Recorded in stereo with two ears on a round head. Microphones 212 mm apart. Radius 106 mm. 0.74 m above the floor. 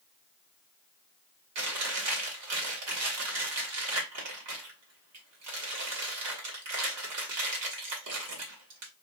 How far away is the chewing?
About 1.3 m.